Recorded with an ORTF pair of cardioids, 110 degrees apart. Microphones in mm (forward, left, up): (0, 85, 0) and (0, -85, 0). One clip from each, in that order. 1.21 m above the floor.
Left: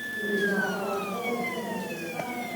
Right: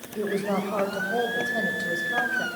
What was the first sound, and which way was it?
A woman speaking, 65° right.